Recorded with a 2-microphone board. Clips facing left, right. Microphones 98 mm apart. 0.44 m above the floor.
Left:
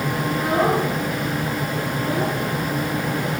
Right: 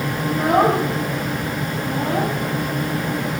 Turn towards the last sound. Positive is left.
turn(degrees=-70)  # may be behind; listen again after turning